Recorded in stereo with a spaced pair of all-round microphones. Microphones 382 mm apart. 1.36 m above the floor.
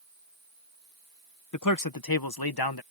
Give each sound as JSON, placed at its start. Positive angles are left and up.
{"t": 1.5, "sound": "a man speaking", "side_deg": 50}